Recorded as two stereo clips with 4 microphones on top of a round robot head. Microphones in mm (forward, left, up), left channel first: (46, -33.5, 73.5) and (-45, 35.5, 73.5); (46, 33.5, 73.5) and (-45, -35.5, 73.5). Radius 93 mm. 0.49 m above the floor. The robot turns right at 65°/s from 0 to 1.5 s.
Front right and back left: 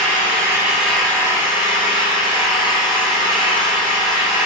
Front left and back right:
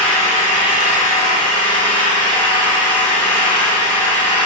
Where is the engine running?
175° left, 4 m; by 4.5 s 90° right, 4 m.